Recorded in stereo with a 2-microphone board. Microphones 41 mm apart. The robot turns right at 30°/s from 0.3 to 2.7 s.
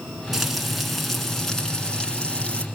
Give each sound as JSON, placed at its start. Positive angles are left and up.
{"t": 0.3, "sound": "frying", "azimuth_deg": -15, "distance_m": 1.9}